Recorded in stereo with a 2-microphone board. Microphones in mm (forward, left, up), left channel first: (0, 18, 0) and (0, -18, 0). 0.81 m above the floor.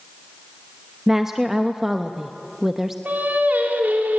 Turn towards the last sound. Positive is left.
turn(degrees=-60)  # may be behind; listen again after turning